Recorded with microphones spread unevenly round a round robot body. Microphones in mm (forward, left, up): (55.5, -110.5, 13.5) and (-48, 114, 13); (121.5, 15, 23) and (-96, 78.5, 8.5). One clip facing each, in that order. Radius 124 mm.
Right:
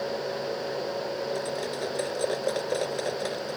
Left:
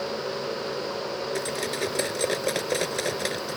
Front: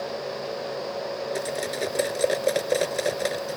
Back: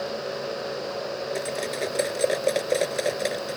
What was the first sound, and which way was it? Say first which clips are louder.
Cutlery clinking: left 2 dB, even; 65° left.